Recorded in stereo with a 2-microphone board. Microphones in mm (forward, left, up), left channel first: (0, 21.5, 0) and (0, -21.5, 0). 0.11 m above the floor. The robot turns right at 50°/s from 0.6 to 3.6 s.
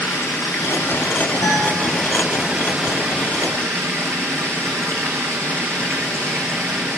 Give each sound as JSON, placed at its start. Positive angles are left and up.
{"t": 0.0, "sound": "running water", "azimuth_deg": 110, "distance_m": 1.9}
{"t": 1.4, "sound": "a guitar", "side_deg": 80, "distance_m": 7.5}